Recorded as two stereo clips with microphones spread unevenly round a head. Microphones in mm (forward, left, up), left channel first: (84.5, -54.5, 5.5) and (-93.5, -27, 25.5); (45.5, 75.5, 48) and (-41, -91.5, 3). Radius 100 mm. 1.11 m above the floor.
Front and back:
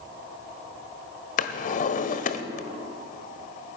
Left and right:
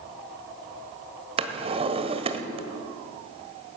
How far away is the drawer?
About 1.3 m.